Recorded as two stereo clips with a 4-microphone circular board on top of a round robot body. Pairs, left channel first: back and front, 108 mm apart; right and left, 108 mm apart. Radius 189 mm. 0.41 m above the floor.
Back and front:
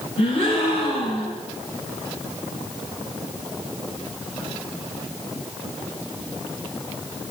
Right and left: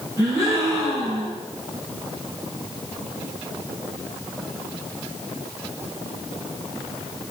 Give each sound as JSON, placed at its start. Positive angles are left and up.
{"t": 0.2, "sound": "a gasp", "azimuth_deg": 150, "distance_m": 9.0}